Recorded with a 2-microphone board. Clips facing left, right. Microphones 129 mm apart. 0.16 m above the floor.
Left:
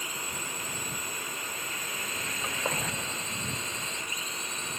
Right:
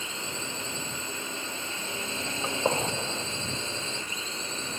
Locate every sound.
0.0 s a drone: 25° right (ahead or behind); by 4.8 s 30° right (ahead or behind)
2.4 s a gunshot: 30° right (ahead or behind)